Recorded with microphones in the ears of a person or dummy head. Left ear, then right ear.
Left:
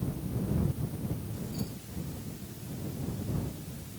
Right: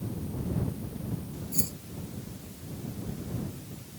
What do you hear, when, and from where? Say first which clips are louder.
1.5 s keys jangling: right 6 dB; 55° right (ahead or behind)